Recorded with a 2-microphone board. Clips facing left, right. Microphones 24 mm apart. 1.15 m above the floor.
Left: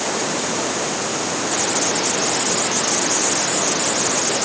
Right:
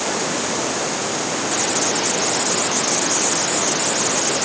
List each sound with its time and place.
Only background noise.